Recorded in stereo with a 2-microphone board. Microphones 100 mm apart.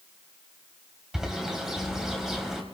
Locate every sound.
1.1 s a bird: 5° right (ahead or behind), 2.5 m